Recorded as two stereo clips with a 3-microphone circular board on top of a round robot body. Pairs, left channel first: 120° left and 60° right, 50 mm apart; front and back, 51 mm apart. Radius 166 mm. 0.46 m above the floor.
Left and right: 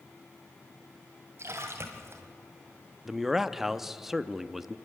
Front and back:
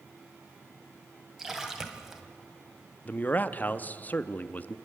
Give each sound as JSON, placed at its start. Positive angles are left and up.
{"t": 1.4, "sound": "a splash", "azimuth_deg": -100, "distance_m": 1.6}
{"t": 3.0, "sound": "a man speaking", "azimuth_deg": 20, "distance_m": 0.9}